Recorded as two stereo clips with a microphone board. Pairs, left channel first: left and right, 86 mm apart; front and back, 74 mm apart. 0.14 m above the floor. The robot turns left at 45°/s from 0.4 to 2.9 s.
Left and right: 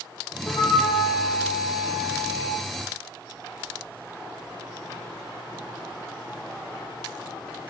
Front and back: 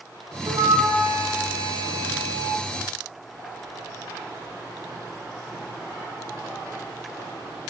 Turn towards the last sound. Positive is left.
turn(degrees=35)